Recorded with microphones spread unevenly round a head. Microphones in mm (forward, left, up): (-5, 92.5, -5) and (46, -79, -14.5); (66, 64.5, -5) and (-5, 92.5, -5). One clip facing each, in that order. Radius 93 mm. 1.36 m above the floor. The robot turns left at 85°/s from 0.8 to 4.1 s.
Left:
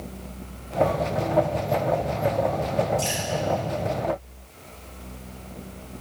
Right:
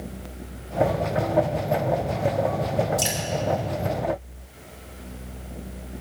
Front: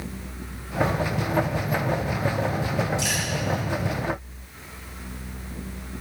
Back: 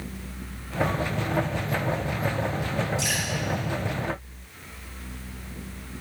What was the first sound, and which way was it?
Dripping, 90° right.